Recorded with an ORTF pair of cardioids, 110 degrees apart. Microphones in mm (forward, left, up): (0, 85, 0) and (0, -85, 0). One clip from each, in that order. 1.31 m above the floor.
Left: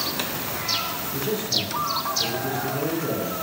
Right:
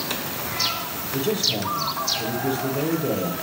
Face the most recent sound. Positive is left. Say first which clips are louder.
# right 3 dB
turn(degrees=-30)